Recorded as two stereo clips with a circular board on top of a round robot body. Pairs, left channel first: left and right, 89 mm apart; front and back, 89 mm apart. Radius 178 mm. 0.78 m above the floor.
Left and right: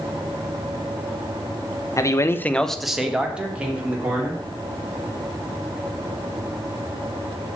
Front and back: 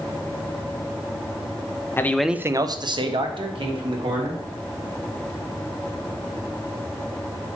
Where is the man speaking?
55° left, 0.9 m; by 4.4 s 160° right, 3 m.